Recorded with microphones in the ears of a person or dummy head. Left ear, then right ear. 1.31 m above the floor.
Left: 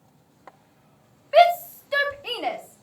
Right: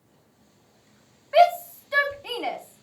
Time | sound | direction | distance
1.3 | a shout | 10° left (ahead or behind) | 1.4 m